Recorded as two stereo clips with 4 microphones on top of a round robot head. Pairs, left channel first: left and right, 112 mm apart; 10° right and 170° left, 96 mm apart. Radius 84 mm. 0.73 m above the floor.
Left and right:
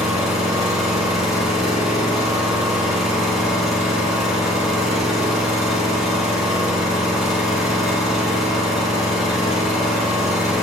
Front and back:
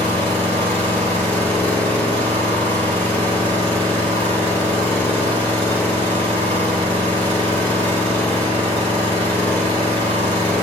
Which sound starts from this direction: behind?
An engine running, at 0.0 s.